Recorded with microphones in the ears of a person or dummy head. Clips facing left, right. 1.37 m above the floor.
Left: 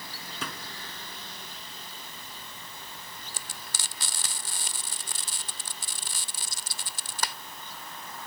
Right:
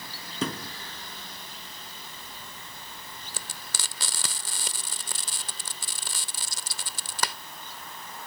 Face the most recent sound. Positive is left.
turn(degrees=-55)  # may be behind; listen again after turning